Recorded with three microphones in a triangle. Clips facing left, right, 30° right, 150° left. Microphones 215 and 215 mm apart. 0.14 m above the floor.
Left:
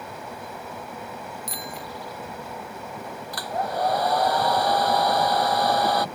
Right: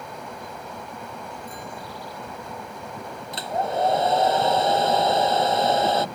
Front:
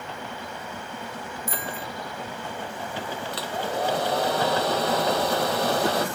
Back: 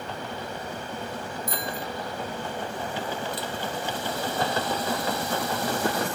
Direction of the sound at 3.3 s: 25° right.